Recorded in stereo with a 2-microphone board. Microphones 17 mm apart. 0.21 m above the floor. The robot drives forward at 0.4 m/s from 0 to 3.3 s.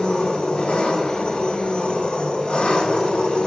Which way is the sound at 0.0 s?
80° left.